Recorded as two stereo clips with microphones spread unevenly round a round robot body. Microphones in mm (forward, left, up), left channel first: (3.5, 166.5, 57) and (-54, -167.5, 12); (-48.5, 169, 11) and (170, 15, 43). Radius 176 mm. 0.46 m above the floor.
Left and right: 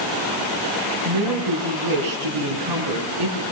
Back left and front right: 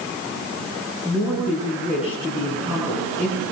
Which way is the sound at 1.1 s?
120° right.